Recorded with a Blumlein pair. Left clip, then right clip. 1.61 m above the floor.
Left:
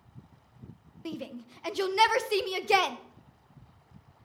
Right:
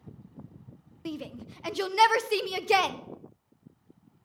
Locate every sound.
1.1 s a shout: 5° right, 0.8 m